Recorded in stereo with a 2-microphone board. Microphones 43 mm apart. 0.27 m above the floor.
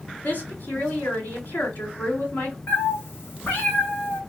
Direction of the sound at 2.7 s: 65° left (ahead or behind).